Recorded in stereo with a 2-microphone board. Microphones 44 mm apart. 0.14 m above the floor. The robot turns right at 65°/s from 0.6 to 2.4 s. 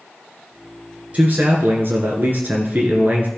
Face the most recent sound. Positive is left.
turn(degrees=-55)